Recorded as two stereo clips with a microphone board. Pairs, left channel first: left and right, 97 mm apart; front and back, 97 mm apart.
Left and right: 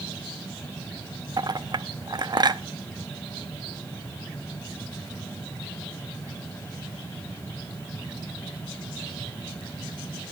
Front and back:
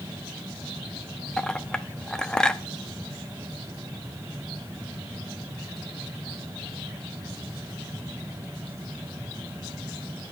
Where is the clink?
80° right, 0.7 m.